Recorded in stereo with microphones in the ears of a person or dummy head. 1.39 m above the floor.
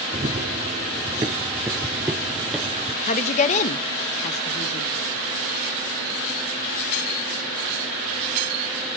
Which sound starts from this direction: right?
Running footsteps, at 0.1 s.